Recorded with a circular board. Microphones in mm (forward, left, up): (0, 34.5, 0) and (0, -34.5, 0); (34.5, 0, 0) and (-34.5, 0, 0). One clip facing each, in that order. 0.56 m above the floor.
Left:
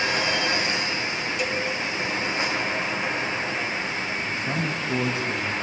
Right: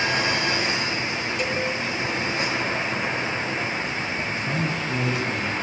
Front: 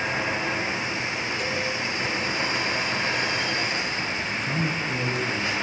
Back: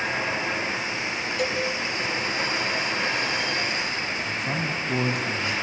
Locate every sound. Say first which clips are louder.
1.4 s a cowbell: right 1 dB, back 5 dB; straight behind, 3.5 m
4.2 s a man speaking: right 1 dB, front 1 dB; 155° left, 5 m